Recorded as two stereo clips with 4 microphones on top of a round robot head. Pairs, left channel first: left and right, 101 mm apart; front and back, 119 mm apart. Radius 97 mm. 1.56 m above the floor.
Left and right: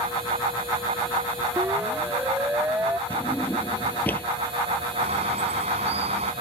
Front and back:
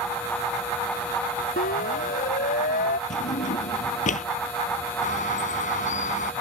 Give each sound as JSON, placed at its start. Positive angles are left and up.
{"t": 1.6, "sound": "a siren", "azimuth_deg": -15}
{"t": 3.1, "sound": "a drawer", "azimuth_deg": 10}
{"t": 5.0, "sound": "a bird", "azimuth_deg": -45}